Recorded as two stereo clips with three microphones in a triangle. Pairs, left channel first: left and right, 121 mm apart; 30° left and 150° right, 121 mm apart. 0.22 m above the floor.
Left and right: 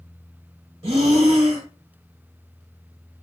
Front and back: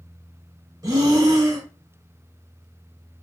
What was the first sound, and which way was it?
Breathing, 95° right.